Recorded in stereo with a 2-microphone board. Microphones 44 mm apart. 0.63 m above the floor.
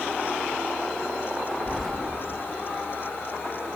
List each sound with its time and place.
1.7 s keys jangling: 5° left (ahead or behind), 1.4 m